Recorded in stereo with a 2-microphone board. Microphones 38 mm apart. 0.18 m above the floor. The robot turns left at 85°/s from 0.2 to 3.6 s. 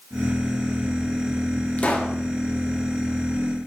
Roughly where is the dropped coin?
No dropped coin in this recording.